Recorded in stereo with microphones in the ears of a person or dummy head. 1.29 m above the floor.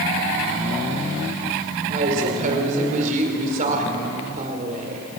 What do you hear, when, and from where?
1.9 s a woman speaking: 45° right (ahead or behind), 4 m